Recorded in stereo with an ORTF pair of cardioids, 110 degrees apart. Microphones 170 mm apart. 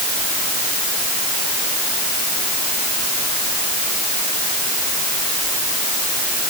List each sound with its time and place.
Only background noise.